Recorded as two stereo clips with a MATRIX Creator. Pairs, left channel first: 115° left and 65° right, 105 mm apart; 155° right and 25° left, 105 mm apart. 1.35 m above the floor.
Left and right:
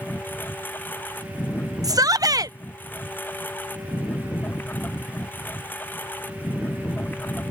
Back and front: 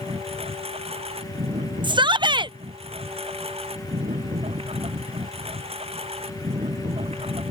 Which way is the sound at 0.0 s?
40° left.